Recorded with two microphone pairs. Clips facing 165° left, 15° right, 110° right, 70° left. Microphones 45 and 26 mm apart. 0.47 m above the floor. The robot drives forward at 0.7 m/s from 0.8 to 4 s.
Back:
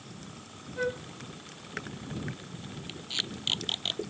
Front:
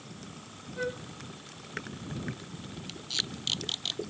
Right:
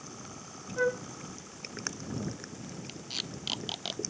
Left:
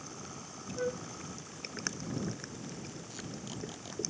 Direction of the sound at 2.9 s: 125° right.